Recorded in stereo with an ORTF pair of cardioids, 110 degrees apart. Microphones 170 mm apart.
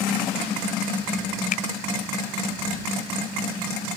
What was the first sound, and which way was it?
A finger snap, 55° left.